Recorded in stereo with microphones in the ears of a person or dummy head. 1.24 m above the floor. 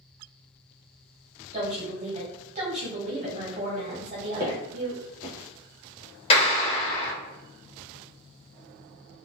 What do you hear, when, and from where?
1.5 s a woman speaking: 35° right (ahead or behind), 1.2 m
4.4 s footsteps: 20° right (ahead or behind), 1.3 m
6.3 s a clap: 35° left (ahead or behind), 1.2 m